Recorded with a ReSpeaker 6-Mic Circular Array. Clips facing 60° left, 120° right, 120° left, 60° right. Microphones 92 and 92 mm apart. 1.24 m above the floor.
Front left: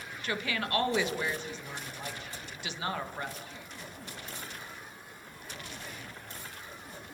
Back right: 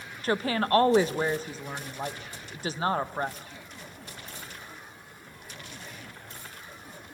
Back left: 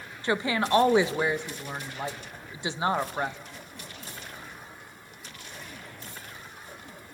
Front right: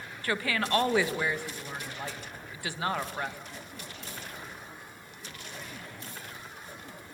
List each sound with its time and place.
0.2 s a woman speaking: 170° right, 1.3 m